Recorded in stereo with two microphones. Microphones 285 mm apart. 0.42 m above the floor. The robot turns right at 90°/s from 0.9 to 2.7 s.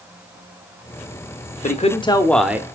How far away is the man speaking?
About 0.8 m.